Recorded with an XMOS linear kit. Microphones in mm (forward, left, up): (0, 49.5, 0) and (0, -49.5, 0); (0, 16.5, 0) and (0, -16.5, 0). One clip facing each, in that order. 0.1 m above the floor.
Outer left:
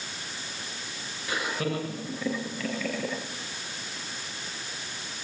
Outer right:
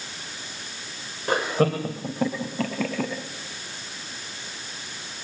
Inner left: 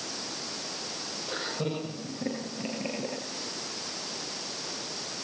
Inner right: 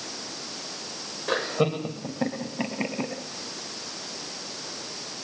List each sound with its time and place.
1.3 s laughter: 60° right (ahead or behind), 7.5 m